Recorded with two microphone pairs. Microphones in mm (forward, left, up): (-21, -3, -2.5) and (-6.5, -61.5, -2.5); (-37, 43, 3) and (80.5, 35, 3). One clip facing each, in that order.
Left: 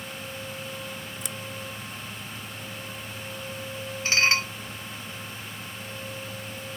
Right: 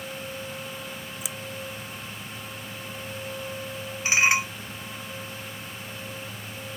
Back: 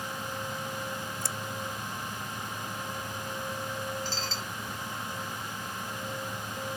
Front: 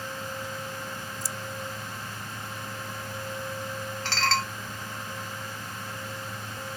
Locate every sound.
1.2 s scissors: 160° right
4.0 s dishes clattering: straight ahead